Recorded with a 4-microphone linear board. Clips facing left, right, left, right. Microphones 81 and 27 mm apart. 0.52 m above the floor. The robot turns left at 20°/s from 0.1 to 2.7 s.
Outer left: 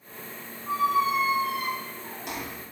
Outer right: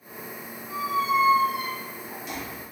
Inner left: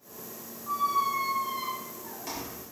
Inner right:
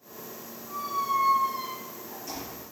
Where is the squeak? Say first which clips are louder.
Outer left 2 dB, inner left 2 dB; 120° left, 0.7 m; by 2.6 s 80° left, 0.7 m.